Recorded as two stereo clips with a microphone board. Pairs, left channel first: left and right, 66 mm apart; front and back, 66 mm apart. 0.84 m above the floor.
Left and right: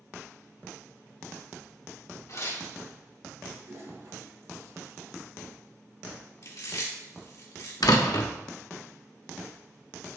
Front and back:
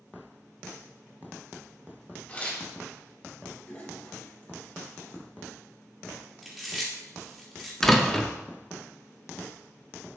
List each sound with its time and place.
2.3 s tearing paper: 65° left, 2 m
3.6 s a toilet flushing: 55° right, 3.5 m
6.4 s chewing: 90° left, 2.5 m
7.8 s a door slam: 85° left, 0.9 m